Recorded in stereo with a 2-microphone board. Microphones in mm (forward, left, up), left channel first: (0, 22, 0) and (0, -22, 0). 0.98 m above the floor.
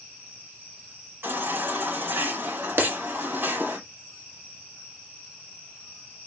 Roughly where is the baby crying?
Right.